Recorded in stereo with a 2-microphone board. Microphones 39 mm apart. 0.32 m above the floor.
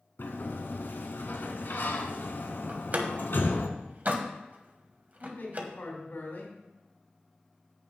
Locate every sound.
0.2 s a sliding door: 70° left (ahead or behind), 1.0 m
2.7 s a door slam: 50° right (ahead or behind), 1.3 m
5.2 s a man speaking: 60° left (ahead or behind), 3 m